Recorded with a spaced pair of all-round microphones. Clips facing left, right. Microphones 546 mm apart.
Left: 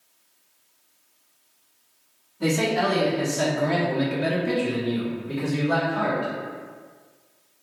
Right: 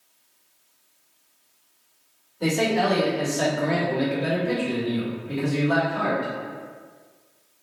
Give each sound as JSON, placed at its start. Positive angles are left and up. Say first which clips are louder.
{"t": 2.4, "sound": "a man speaking", "louder": "even", "side_deg": 30, "distance_m": 1.4}